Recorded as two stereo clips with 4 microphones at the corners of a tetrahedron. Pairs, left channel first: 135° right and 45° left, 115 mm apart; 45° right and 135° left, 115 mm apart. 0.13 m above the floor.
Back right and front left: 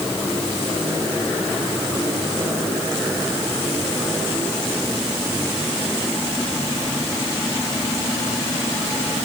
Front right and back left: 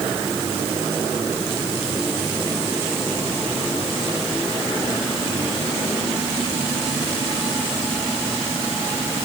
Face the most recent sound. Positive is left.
No sound to turn to.